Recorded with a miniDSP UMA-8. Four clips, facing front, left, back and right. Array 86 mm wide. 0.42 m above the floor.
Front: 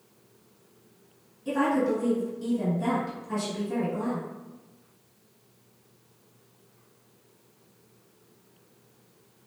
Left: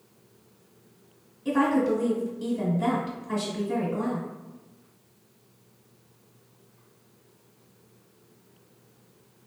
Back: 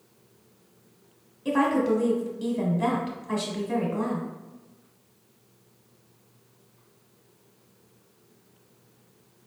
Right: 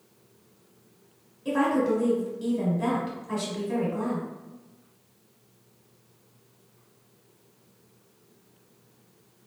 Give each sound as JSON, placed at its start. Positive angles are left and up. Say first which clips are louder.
{"t": 1.4, "sound": "a woman speaking", "louder": "left 1 dB, back 2 dB", "azimuth_deg": -175, "distance_m": 1.4}